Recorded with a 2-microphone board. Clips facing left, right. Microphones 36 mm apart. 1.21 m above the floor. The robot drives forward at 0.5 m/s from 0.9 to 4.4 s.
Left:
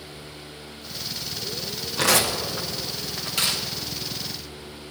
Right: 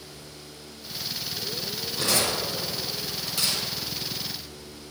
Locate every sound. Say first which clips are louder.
2.0 s tearing paper: left 5 dB; 75° left (ahead or behind), 0.9 m; by 3.6 s 45° left (ahead or behind), 1.2 m